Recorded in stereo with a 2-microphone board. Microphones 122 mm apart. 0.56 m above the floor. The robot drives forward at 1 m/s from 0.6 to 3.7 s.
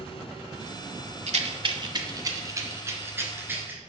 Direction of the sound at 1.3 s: 65° right (ahead or behind).